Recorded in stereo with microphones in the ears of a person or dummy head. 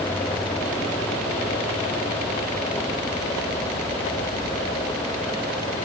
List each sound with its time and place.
Only background noise.